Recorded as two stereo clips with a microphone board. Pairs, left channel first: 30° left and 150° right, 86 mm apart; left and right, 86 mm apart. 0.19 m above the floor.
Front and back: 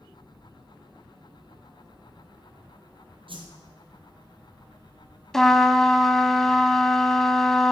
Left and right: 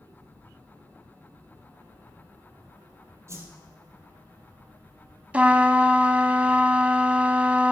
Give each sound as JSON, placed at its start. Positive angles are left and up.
{"t": 3.3, "sound": "a whoosh", "azimuth_deg": -145, "distance_m": 1.7}
{"t": 5.3, "sound": "a trumpet", "azimuth_deg": -45, "distance_m": 0.6}